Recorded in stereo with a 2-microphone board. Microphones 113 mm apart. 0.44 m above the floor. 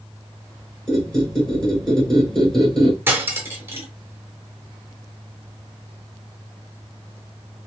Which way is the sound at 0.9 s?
5° left (ahead or behind).